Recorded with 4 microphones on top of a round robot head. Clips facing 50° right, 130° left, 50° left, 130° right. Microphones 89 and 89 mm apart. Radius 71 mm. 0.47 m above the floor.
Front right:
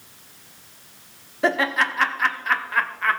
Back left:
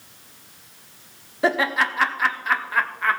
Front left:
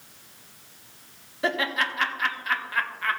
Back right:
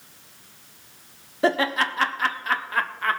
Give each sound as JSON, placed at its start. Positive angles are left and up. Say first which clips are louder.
{"t": 1.4, "sound": "laughter", "louder": "even, back right 5 dB", "azimuth_deg": -150, "distance_m": 1.0}